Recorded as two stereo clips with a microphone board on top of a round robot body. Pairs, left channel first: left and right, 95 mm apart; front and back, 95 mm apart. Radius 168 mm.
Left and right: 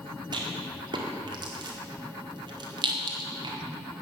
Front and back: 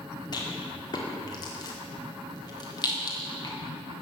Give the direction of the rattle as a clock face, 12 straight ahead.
2 o'clock.